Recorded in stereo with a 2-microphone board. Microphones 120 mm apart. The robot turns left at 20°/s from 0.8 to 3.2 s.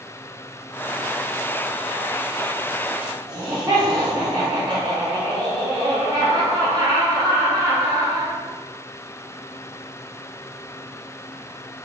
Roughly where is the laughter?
Right.